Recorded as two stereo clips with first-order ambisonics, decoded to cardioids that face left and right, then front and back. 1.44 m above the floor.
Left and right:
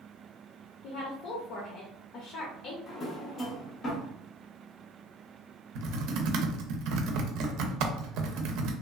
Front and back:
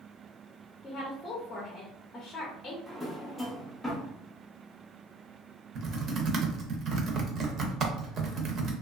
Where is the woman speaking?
65° left, 0.6 m.